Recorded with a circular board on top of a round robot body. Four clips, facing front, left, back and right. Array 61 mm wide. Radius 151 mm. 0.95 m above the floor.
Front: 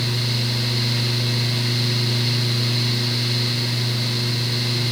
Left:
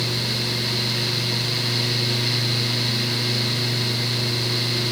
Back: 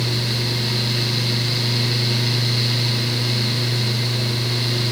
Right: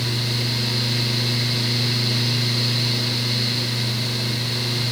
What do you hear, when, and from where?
Only background noise.